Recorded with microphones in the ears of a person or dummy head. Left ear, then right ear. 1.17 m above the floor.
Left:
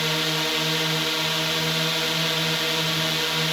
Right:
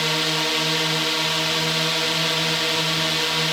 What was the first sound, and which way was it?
A drone, 15° right (ahead or behind).